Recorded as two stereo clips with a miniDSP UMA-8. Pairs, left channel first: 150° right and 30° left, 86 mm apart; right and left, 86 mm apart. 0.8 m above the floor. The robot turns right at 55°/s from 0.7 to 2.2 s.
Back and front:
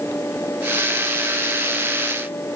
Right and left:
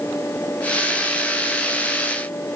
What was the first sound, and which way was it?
Only background noise.